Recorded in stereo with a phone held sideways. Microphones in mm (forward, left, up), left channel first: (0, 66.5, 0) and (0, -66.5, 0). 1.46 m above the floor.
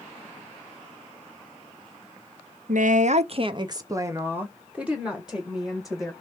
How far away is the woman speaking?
About 0.5 m.